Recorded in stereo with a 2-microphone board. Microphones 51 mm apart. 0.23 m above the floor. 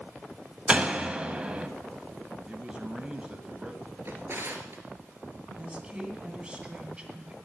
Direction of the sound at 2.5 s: 20° right (ahead or behind).